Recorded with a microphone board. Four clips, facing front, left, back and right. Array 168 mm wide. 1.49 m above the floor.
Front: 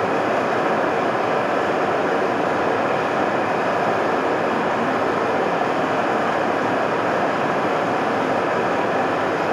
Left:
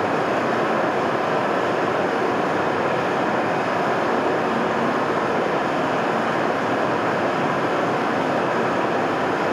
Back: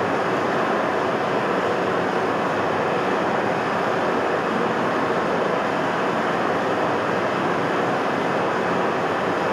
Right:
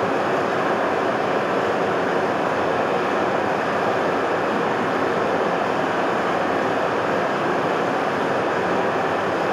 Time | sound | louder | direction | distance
0.0 | running water | even, front 2 dB | 5° left | 1.7 m